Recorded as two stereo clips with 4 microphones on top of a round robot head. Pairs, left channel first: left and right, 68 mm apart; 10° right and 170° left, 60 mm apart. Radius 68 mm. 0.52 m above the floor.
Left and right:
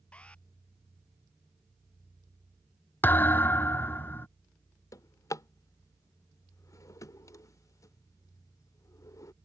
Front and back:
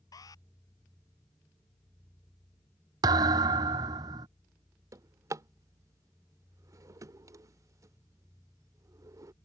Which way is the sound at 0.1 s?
15° left.